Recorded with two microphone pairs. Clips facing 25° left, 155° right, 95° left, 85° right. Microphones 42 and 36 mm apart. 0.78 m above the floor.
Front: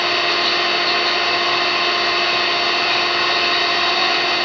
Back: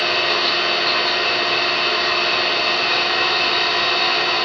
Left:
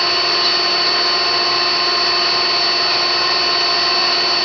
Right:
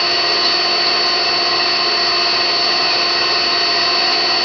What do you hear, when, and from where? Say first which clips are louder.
0.0 s an engine running: front 1 dB, even; straight ahead, 1.0 m